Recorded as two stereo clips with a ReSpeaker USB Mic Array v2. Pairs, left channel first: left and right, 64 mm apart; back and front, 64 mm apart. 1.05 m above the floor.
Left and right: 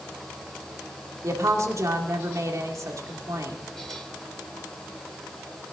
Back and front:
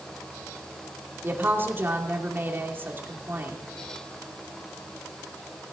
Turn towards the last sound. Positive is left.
turn(degrees=-55)